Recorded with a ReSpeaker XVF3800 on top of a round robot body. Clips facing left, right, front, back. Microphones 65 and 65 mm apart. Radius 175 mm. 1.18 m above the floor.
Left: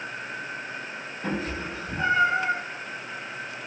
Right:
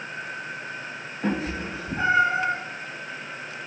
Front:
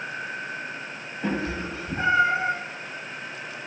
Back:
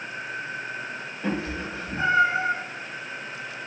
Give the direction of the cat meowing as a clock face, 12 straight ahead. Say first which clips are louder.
Right 3 dB, front 1 dB; 2 o'clock.